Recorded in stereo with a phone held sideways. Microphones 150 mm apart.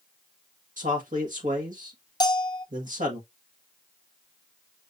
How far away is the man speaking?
About 1.5 m.